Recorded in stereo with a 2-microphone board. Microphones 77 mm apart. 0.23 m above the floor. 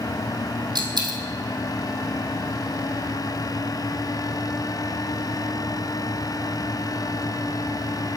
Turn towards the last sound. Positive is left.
turn(degrees=-70)  # may be behind; listen again after turning